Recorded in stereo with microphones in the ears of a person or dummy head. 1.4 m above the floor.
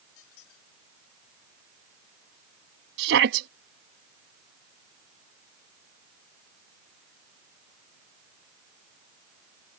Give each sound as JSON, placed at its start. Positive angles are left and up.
{"t": 0.2, "sound": "a squeak", "side_deg": 70}
{"t": 3.0, "sound": "a shout", "side_deg": -75}